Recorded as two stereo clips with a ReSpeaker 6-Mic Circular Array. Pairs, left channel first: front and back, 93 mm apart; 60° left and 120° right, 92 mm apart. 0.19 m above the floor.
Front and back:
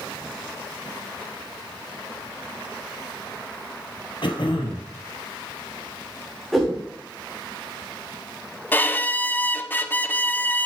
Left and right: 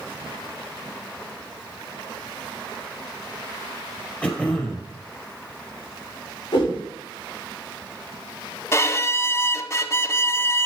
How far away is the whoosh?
About 4.5 m.